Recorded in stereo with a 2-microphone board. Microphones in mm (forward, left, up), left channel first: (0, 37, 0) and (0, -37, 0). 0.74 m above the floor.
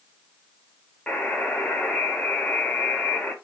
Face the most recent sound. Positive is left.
turn(degrees=15)  # may be behind; listen again after turning